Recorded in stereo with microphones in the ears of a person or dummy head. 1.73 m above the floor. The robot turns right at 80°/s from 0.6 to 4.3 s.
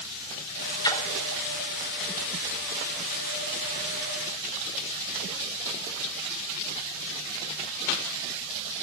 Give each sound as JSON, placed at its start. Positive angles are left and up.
{"t": 0.8, "sound": "a splash", "side_deg": 20, "distance_m": 1.5}